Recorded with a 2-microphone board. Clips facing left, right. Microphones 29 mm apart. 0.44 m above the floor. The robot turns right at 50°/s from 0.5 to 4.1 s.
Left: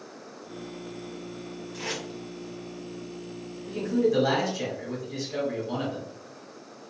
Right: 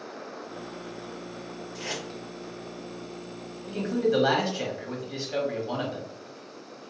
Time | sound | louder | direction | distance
1.7 | tape being pulled | left 1 dB | 65° left (ahead or behind) | 1.5 m
3.7 | a man speaking | left 1 dB | 30° right (ahead or behind) | 1.2 m